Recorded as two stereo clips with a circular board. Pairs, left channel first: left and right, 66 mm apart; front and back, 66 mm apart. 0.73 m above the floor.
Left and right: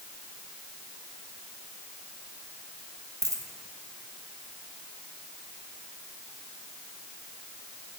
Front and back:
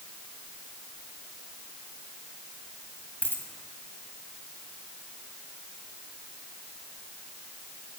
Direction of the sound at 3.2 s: 55° right.